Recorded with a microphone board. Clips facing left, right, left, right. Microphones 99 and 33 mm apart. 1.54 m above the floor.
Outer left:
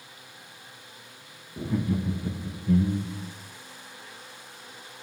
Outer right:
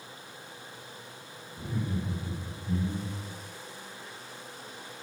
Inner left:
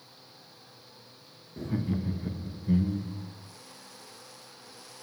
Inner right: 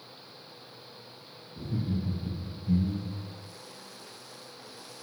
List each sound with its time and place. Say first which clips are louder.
1.6 s laughter: outer left 6 dB, inner left 2 dB; 80° left, 1.5 m; by 3.3 s 50° left (ahead or behind), 1.0 m